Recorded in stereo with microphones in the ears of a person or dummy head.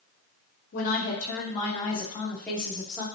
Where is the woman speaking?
55° left (ahead or behind), 1.7 m; by 3.0 s 5° right (ahead or behind), 1.4 m.